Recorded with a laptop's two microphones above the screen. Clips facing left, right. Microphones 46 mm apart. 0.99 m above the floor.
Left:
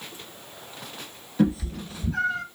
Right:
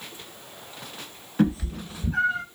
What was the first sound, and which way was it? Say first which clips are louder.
A cat meowing: even; 35° right (ahead or behind).